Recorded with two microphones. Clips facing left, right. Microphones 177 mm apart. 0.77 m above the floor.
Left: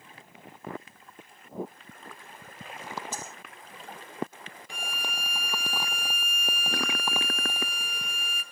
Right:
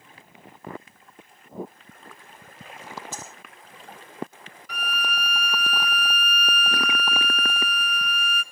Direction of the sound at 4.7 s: 25° left (ahead or behind).